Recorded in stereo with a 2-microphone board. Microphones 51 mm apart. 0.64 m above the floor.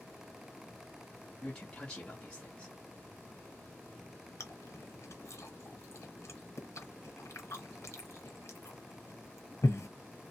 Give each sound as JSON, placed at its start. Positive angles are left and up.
{"t": 1.4, "sound": "a man speaking", "side_deg": 20, "distance_m": 0.8}
{"t": 4.4, "sound": "chewing", "side_deg": 70, "distance_m": 0.9}